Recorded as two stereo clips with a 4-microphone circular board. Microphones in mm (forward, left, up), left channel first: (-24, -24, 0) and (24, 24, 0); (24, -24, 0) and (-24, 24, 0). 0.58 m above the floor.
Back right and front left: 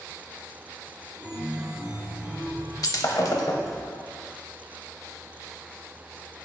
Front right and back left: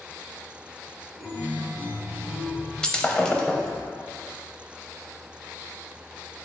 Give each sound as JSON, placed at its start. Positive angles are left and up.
{"t": 1.2, "sound": "a chime", "azimuth_deg": -15, "distance_m": 0.9}
{"t": 2.8, "sound": "breaking glass", "azimuth_deg": -125, "distance_m": 0.6}